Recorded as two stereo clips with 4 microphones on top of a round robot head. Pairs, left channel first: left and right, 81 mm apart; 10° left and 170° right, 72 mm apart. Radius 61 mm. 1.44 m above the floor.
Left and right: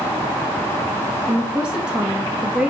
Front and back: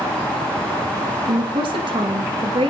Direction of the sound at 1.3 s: 170° right.